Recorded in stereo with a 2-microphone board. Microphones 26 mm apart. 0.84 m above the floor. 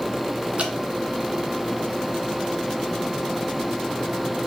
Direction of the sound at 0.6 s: 50° right (ahead or behind).